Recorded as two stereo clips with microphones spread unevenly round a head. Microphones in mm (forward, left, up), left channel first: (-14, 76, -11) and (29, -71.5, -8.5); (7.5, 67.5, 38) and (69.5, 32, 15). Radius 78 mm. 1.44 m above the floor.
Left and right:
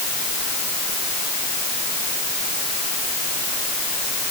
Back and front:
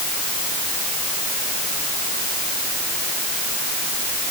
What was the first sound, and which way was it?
Only background noise.